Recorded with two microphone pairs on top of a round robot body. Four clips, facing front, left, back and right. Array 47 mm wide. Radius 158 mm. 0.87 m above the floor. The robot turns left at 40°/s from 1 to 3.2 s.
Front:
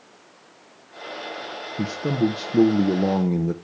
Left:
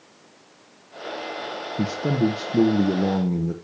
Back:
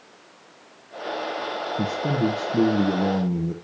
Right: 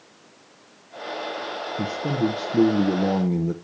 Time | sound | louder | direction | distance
1.8 | a man speaking | left 2 dB, front 2 dB | 50° left | 0.9 m